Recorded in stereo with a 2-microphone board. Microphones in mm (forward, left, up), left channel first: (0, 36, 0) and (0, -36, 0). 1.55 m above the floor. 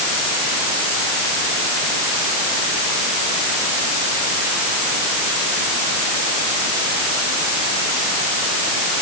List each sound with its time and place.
Only background noise.